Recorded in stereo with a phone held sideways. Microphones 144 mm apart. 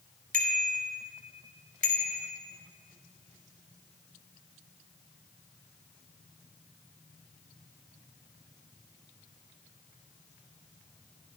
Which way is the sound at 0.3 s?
75° right (ahead or behind).